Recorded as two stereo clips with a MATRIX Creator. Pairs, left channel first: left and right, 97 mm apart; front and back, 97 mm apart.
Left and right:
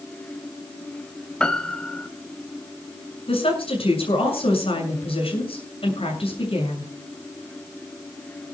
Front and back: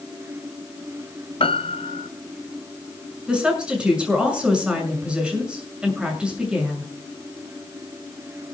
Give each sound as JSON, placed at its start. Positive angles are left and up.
{"t": 1.4, "sound": "a piano", "azimuth_deg": 10, "distance_m": 1.1}
{"t": 3.3, "sound": "a woman speaking", "azimuth_deg": 100, "distance_m": 7.0}